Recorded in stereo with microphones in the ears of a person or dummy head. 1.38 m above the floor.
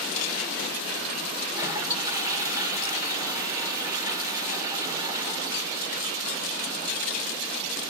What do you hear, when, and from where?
1.5 s a toilet flushing: 20° right (ahead or behind), 1.8 m